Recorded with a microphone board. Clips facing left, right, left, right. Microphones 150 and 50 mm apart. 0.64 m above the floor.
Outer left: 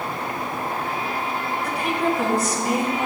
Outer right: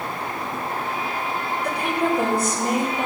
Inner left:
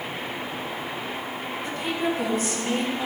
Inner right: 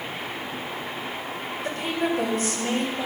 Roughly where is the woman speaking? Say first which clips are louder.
Outer right 1 dB, inner right 1 dB; right.